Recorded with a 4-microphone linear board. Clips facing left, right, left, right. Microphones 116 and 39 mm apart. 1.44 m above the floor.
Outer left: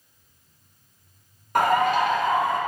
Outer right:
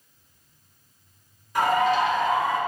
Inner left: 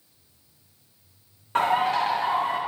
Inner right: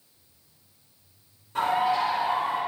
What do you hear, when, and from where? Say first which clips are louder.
1.6 s a bird: outer left 1 dB, inner left 2 dB; 55° left (ahead or behind), 0.6 m